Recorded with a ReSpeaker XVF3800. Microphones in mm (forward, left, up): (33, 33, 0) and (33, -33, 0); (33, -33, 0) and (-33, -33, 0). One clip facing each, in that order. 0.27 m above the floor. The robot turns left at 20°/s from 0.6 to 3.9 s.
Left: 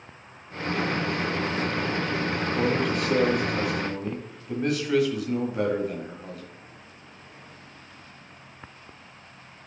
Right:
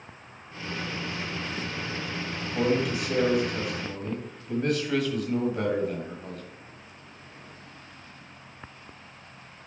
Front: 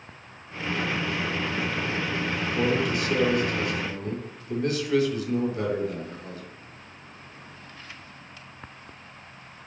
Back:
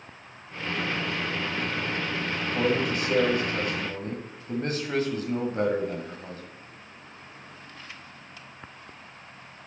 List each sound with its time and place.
2.4 s a man speaking: 155° right, 1.5 m; by 6.4 s 175° left, 1.5 m